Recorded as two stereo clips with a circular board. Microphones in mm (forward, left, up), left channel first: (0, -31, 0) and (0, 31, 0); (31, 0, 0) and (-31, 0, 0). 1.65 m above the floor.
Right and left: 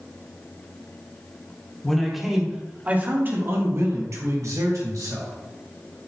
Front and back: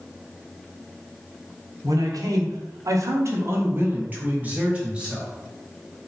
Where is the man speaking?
170° right, 1.5 m; by 5.3 s 105° left, 2.5 m.